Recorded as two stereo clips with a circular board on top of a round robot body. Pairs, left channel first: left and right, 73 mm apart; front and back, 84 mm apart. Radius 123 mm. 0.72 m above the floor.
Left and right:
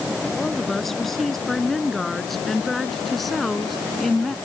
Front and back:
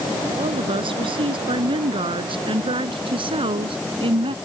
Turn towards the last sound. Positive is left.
turn(degrees=180)